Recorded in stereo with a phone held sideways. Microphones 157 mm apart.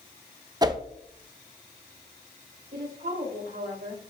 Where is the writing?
No writing in this recording.